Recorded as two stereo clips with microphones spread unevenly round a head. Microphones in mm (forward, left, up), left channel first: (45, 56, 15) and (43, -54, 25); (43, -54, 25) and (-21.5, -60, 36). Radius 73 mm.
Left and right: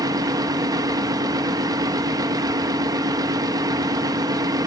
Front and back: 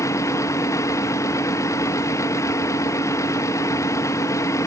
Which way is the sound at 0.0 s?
35° right.